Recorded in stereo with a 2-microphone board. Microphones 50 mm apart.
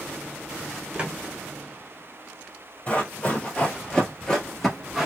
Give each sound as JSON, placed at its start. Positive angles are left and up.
{"t": 0.9, "sound": "footsteps", "side_deg": -20, "distance_m": 1.5}
{"t": 2.9, "sound": "running footsteps", "side_deg": 30, "distance_m": 1.6}